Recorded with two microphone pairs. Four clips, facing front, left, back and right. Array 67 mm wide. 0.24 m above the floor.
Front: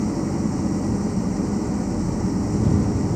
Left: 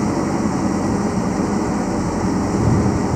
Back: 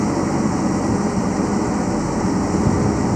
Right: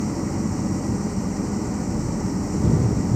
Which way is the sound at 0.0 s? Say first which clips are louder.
Left 7 dB, back 5 dB; 140° left.